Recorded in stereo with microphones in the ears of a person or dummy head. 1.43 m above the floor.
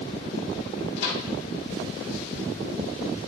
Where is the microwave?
70° left (ahead or behind), 3 m.